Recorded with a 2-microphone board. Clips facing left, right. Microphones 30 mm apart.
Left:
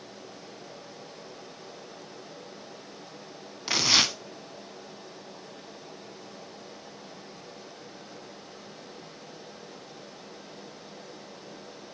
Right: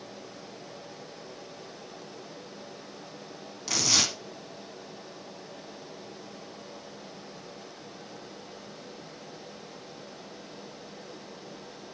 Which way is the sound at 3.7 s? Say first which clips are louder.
Left 3 dB; 35° left (ahead or behind).